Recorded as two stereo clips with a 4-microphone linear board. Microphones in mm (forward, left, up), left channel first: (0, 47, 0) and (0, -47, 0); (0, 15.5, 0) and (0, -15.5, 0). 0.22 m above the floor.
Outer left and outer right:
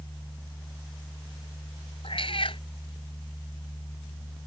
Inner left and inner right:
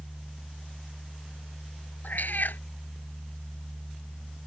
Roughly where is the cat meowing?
Left.